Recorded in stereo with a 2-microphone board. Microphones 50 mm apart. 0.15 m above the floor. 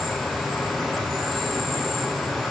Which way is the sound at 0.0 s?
Centre (ahead or behind).